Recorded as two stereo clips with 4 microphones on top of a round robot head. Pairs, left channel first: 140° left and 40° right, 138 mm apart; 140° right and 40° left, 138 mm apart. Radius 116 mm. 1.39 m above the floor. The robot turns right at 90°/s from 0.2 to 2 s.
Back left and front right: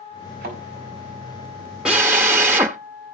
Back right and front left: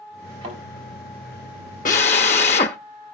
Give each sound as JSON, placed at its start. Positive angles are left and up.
{"t": 0.4, "sound": "a thud", "azimuth_deg": -20, "distance_m": 5.0}
{"t": 1.9, "sound": "a drill", "azimuth_deg": -120, "distance_m": 0.8}